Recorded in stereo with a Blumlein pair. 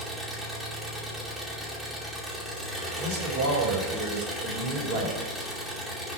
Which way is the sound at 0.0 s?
5° left.